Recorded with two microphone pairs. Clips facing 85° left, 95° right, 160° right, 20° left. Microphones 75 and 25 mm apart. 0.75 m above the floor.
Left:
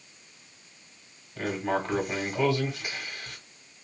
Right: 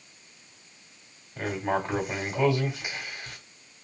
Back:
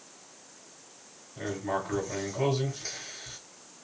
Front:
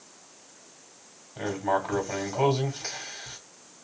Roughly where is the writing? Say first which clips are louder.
Even, front 5 dB; ahead.